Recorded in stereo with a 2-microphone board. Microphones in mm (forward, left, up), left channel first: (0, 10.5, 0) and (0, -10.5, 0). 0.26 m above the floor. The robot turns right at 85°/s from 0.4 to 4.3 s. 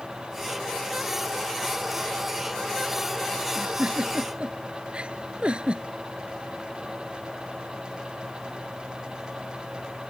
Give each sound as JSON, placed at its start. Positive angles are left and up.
{"t": 3.5, "sound": "a giggle", "side_deg": -50}